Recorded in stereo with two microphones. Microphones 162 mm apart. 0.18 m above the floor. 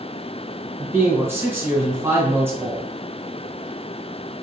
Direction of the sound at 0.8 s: 15° right (ahead or behind).